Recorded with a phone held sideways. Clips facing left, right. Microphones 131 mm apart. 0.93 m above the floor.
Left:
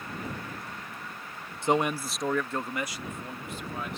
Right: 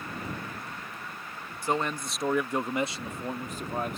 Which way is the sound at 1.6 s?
25° left (ahead or behind).